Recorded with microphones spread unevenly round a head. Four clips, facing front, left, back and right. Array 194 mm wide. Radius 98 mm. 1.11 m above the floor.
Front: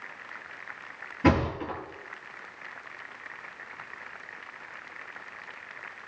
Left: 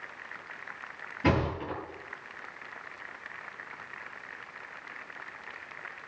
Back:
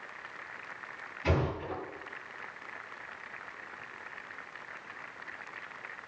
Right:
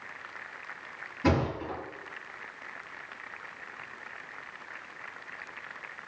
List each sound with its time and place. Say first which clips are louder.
1.2 s a thud: even, front 7 dB; straight ahead, 6.5 m